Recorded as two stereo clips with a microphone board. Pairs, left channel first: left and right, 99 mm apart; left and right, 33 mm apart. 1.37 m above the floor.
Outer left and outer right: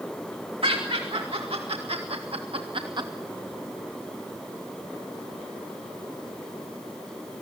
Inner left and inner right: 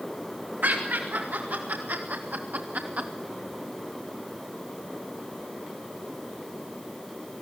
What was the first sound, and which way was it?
Laughter, 75° right (ahead or behind).